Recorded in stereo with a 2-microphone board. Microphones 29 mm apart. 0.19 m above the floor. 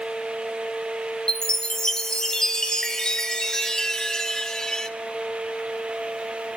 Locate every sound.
1.3 s a chime: 20° left (ahead or behind), 1.2 m